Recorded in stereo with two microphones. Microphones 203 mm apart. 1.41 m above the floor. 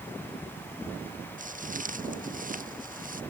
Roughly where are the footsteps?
Right.